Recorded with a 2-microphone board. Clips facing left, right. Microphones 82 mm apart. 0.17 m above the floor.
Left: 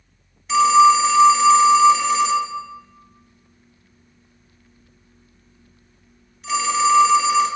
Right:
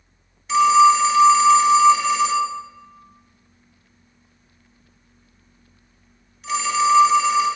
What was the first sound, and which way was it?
A phone ringing, centre (ahead or behind).